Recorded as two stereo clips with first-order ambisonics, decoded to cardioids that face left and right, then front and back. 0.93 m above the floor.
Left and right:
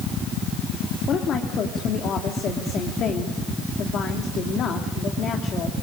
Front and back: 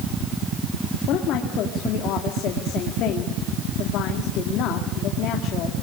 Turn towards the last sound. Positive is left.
turn(degrees=35)